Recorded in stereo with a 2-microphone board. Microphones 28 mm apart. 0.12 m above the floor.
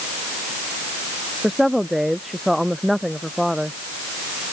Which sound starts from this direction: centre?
A woman speaking, at 1.4 s.